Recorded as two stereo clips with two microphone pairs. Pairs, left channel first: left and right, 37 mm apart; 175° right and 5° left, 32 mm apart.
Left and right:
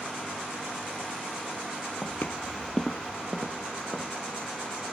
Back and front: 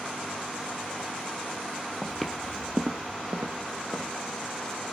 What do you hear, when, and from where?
2.0 s footsteps: 110° left, 1.0 m; by 4.1 s 30° right, 2.5 m